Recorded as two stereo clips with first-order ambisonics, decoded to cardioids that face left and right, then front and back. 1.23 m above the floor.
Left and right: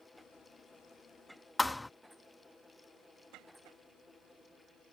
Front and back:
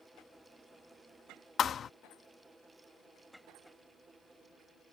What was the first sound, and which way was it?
A thud, 15° left.